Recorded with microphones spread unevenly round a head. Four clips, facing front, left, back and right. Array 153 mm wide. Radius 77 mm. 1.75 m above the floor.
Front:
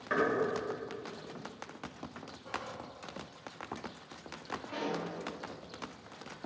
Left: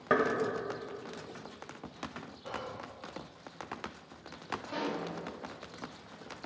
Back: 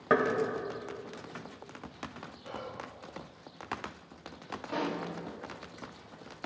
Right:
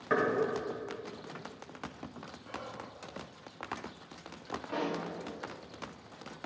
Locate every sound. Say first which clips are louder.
0.1 s knocking: left 2 dB, back 5 dB; 145° left, 2 m
2.4 s whispering: left 3 dB, even; 100° left, 0.8 m
4.7 s a pop: right 2 dB, back 3 dB; 165° right, 1.4 m